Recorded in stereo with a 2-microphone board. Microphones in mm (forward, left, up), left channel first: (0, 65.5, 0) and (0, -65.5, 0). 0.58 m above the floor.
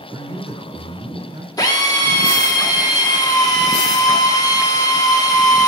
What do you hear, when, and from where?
0.1 s a man speaking: 40° right (ahead or behind), 2.5 m
1.6 s a drill: 30° left (ahead or behind), 1.2 m